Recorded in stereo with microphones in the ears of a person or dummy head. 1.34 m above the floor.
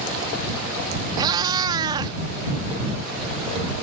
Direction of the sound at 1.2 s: 20° right (ahead or behind).